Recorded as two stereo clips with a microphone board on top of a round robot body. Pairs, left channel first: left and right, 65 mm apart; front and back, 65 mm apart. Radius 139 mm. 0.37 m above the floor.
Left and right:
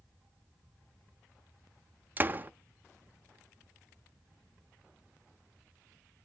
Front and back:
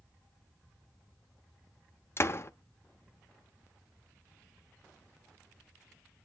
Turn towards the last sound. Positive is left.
turn(degrees=-35)